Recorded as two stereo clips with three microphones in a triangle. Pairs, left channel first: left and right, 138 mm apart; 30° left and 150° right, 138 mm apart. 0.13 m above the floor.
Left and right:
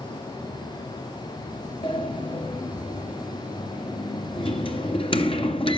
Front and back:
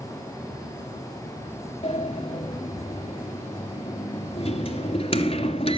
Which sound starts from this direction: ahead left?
A sliding door, at 1.8 s.